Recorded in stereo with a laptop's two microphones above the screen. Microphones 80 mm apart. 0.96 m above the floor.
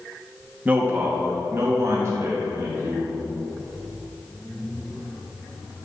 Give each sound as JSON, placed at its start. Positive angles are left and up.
{"t": 0.7, "sound": "a man speaking", "side_deg": -20, "distance_m": 1.0}